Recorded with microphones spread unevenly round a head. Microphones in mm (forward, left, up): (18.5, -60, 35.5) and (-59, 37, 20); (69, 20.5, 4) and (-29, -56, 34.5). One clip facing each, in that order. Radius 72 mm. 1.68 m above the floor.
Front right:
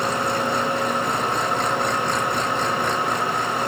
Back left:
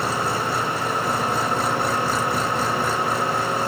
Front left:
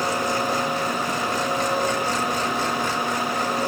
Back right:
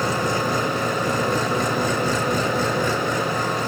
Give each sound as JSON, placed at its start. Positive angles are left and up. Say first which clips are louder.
{"t": 0.0, "sound": "an engine running", "louder": "front right 1 dB, back right 1 dB", "azimuth_deg": -145}